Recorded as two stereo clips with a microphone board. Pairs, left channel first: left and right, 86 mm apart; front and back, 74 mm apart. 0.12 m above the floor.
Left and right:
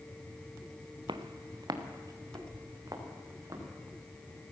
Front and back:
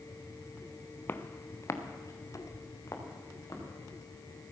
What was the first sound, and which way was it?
Footsteps, 60° right.